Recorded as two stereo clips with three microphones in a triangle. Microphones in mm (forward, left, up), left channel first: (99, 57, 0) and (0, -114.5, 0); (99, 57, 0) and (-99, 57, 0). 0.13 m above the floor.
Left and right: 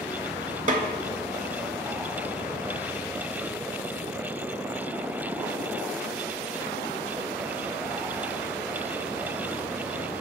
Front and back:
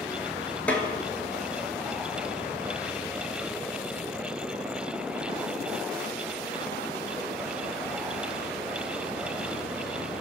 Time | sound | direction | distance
0.7 | a snare drum | 80° right | 0.5 m